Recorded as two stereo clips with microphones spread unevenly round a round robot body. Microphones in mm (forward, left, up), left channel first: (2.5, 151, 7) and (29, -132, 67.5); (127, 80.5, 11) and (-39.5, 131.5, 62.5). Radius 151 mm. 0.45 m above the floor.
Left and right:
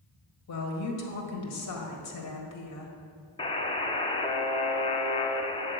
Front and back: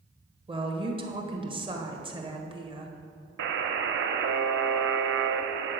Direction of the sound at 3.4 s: 170° left.